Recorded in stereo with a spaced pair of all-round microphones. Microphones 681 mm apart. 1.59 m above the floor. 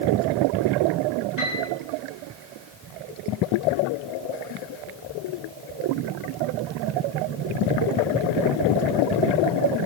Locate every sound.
1.4 s a piano: 85° left, 6 m